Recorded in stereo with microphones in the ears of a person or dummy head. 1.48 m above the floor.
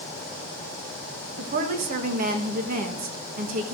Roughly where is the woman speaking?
Right.